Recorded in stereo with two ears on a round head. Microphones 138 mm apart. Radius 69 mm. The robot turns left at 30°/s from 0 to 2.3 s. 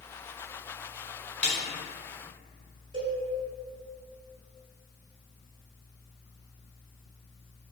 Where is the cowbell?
30° right (ahead or behind), 1.6 m.